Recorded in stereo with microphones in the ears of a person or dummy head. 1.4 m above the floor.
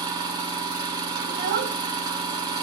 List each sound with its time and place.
0.0 s an engine running: 25° right (ahead or behind), 0.7 m
1.3 s a child speaking: 50° right (ahead or behind), 0.5 m